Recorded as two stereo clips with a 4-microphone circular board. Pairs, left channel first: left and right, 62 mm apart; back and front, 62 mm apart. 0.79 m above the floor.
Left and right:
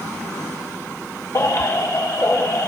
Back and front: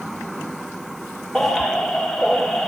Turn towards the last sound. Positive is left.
turn(degrees=85)